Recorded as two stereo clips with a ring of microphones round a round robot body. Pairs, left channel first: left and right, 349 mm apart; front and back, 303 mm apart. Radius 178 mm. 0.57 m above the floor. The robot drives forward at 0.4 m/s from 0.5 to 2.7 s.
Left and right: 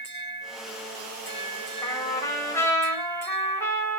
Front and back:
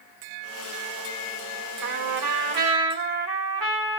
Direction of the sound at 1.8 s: 170° left.